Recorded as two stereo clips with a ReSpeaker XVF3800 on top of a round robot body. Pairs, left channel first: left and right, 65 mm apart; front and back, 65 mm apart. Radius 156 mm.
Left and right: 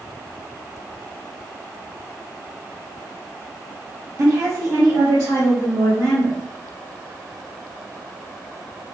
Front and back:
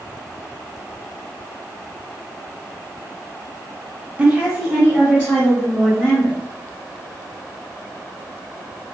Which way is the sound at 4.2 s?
115° right.